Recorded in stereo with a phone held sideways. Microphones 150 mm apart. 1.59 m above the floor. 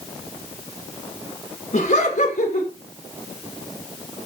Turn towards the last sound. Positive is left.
turn(degrees=50)  # may be behind; listen again after turning